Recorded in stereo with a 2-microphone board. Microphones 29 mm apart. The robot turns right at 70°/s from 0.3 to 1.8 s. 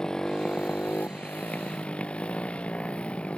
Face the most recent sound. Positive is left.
turn(degrees=135)